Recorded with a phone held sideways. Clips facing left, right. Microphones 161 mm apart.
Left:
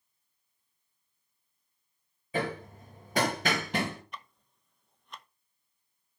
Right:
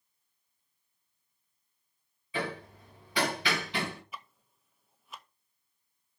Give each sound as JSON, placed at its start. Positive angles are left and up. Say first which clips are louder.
{"t": 2.3, "sound": "hammering", "louder": "left 3 dB", "side_deg": 45, "distance_m": 2.0}
{"t": 4.1, "sound": "ticking", "louder": "even", "side_deg": -5, "distance_m": 0.7}